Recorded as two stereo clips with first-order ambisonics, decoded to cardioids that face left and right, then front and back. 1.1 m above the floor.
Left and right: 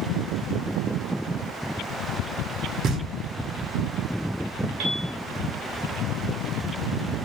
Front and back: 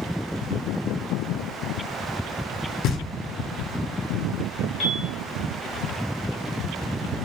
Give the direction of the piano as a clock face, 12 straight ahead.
2 o'clock.